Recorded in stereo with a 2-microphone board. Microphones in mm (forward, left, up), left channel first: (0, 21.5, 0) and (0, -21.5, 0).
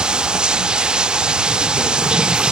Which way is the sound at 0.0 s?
20° right (ahead or behind).